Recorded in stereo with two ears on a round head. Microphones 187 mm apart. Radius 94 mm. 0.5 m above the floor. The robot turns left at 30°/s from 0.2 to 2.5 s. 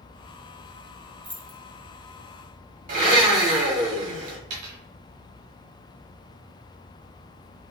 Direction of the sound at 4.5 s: 80° right.